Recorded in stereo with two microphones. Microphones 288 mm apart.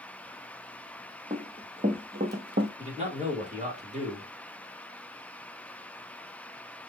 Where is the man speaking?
25° right (ahead or behind), 1.7 m.